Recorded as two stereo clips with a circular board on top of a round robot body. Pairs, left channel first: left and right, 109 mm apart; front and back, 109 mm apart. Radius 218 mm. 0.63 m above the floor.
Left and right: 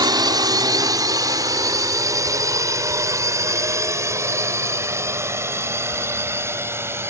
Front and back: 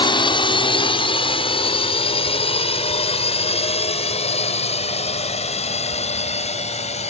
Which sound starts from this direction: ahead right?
A drone, at 0.0 s.